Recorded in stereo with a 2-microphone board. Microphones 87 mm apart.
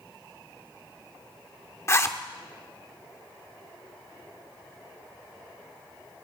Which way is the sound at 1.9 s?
30° left (ahead or behind).